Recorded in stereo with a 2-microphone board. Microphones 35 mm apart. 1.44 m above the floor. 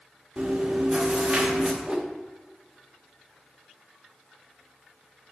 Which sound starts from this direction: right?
Chewing, at 0.4 s.